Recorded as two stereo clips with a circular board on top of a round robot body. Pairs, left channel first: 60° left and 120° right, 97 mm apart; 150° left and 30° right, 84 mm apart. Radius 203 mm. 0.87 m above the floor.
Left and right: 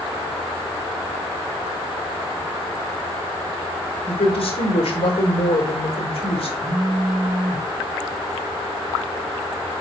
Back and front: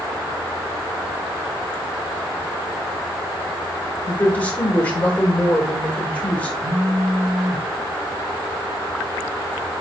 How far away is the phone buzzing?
About 2 m.